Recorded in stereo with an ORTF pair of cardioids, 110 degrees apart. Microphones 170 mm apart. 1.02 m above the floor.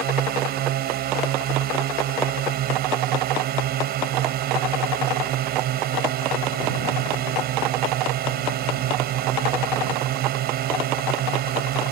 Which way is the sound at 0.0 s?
65° right.